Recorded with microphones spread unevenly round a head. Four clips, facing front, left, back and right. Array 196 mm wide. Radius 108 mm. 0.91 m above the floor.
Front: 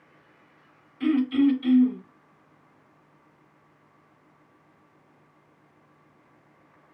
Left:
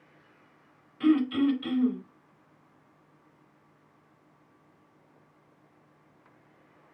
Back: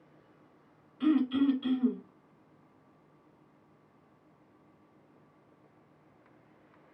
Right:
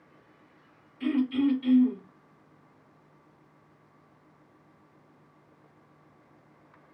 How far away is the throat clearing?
About 3 m.